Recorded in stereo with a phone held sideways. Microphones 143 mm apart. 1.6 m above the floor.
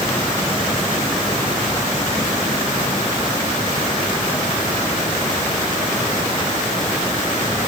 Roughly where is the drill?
No drill in this recording.